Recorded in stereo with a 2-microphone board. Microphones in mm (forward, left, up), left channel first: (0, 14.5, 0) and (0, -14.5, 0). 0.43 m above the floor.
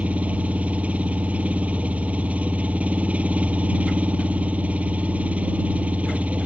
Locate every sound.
0.0 s an engine running: 55° right (ahead or behind)